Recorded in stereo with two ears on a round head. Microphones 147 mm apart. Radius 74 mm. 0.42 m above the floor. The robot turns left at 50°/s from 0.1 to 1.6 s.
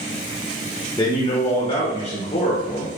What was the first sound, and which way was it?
A man speaking, 140° left.